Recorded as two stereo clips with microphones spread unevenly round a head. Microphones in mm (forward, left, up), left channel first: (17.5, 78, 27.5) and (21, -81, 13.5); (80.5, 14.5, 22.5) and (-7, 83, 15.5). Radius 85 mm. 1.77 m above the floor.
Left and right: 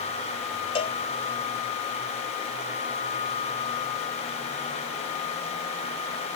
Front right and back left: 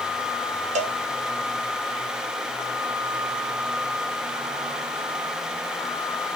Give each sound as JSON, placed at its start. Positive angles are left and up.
{"t": 0.8, "sound": "a cowbell", "azimuth_deg": 145, "distance_m": 0.8}